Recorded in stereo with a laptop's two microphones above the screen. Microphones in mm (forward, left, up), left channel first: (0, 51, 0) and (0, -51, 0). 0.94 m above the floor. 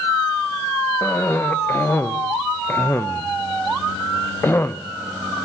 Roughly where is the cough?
Left.